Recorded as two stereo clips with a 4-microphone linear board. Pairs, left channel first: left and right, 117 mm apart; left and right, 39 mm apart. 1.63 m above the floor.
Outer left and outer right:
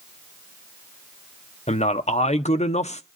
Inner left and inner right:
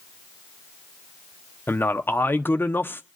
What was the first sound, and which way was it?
A man speaking, 75° left (ahead or behind).